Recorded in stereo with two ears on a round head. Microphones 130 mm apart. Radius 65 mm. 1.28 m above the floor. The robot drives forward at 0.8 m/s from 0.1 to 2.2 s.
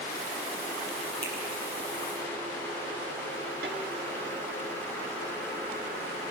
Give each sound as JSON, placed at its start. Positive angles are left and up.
{"t": 1.2, "sound": "a finger snap", "side_deg": -35, "distance_m": 6.5}
{"t": 3.6, "sound": "a snare drum", "side_deg": -80, "distance_m": 8.0}